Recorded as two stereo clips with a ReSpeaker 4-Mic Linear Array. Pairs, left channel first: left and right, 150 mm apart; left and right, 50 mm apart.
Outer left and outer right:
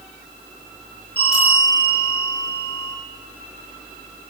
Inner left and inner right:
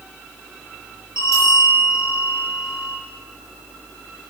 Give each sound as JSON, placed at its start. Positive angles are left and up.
{"t": 1.2, "sound": "a bell", "side_deg": 85, "distance_m": 7.0}